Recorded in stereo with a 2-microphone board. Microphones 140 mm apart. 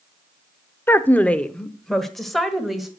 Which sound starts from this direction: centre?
A woman speaking, at 0.9 s.